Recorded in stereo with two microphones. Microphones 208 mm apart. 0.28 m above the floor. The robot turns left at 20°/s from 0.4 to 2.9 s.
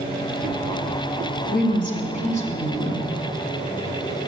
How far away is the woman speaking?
About 2 m.